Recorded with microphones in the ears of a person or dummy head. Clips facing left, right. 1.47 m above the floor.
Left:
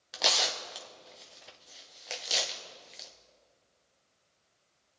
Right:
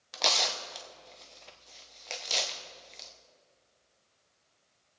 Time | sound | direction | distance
0.1 | tearing paper | 5° left (ahead or behind) | 0.8 m